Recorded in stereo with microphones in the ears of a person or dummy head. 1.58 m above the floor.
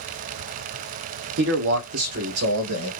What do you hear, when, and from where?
1.4 s a man speaking: 65° right (ahead or behind), 0.8 m; by 2.9 s 85° right, 1.5 m